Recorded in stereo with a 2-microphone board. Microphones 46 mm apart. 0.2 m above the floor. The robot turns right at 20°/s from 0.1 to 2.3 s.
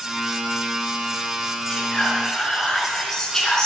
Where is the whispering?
20° left (ahead or behind), 2.5 m; by 3.7 s 10° left (ahead or behind), 2.5 m.